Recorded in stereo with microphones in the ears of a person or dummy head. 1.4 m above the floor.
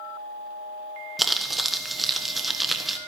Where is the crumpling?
Centre (ahead or behind), 1.2 m.